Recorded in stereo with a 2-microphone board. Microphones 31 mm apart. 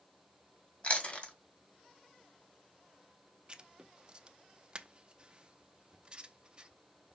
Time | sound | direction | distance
0.8 | chewing | 45° left (ahead or behind) | 1.6 m
3.5 | writing | 35° right (ahead or behind) | 0.6 m